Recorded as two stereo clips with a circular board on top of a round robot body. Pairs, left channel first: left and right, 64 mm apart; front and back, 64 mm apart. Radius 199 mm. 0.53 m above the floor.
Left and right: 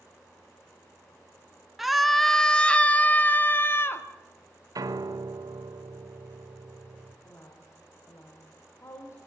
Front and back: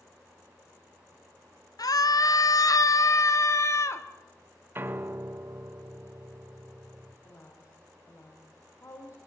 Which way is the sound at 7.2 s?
45° left.